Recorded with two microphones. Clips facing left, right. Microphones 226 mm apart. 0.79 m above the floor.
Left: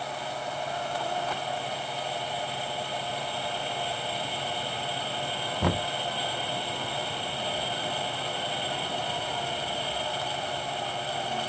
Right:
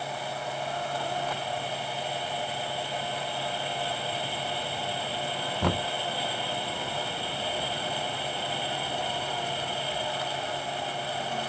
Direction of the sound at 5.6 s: Centre (ahead or behind).